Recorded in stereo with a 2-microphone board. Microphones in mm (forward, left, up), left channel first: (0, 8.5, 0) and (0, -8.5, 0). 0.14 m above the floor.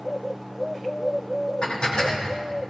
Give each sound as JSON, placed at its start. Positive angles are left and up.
{"t": 1.6, "sound": "dishes clattering", "side_deg": 55, "distance_m": 4.5}